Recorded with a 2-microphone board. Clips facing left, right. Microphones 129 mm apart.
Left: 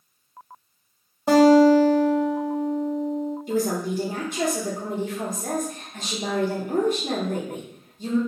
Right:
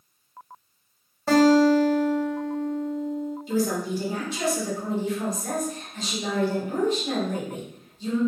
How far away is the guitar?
About 0.7 m.